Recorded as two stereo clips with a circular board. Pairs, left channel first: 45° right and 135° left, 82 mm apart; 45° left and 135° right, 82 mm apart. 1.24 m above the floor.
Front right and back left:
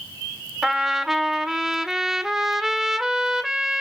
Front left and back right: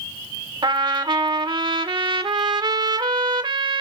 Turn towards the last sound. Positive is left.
turn(degrees=-140)